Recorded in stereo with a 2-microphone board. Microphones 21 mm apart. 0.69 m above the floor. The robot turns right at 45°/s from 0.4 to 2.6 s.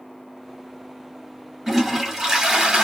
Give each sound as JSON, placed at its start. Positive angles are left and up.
{"t": 1.7, "sound": "a toilet flushing", "azimuth_deg": -165, "distance_m": 1.9}